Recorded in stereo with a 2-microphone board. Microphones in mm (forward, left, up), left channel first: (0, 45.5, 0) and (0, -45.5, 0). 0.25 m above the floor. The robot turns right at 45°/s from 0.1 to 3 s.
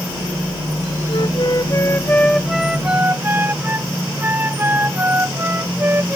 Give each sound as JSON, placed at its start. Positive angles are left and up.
{"t": 1.1, "sound": "a flute", "azimuth_deg": 115}